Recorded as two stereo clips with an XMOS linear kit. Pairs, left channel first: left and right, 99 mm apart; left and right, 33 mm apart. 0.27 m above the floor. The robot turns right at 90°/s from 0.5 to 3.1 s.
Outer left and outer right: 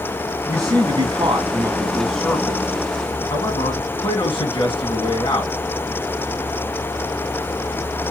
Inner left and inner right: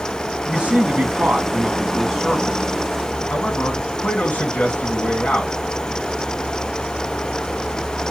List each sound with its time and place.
0.5 s a man speaking: 145° right, 2 m; by 5.5 s 90° left, 2 m